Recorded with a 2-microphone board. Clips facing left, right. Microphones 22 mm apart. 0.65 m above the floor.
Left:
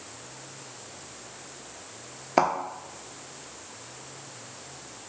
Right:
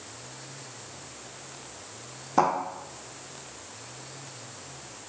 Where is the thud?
45° left (ahead or behind), 0.9 m.